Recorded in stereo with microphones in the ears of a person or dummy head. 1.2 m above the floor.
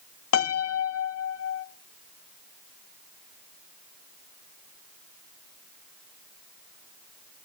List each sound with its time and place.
0.3 s a piano: 65° left (ahead or behind), 0.6 m